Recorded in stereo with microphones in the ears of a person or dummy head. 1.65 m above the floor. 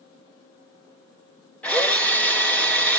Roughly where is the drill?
Centre.